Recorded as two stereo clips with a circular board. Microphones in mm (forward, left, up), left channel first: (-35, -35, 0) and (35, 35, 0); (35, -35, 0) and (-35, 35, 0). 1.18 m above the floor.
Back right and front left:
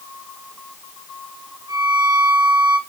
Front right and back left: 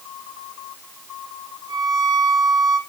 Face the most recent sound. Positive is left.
turn(degrees=95)